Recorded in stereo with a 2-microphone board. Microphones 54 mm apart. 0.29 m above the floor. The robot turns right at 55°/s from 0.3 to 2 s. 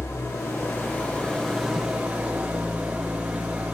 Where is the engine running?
110° left, 5 m; by 3.8 s 155° right, 5 m.